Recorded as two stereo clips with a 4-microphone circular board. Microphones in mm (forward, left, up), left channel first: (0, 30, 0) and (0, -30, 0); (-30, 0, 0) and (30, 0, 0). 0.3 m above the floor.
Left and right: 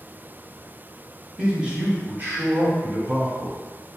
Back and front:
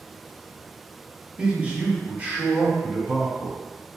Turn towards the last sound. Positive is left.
turn(degrees=-60)